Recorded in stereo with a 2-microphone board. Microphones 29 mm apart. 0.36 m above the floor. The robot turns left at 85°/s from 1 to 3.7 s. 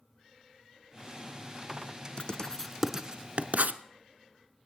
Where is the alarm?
No alarm in this recording.